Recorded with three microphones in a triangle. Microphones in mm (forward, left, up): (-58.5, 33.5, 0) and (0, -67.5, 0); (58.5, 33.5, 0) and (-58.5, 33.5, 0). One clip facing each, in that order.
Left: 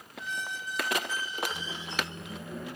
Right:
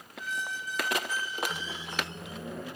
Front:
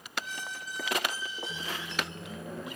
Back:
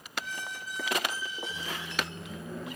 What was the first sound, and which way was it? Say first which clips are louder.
A squeak: right 1 dB, back 1 dB; 60° left.